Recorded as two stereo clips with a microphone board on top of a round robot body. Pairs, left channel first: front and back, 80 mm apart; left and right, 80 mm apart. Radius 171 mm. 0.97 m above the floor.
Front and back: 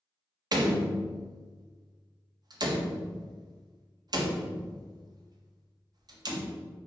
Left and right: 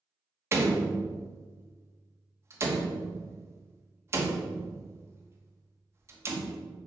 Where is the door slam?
145° right, 1.1 m.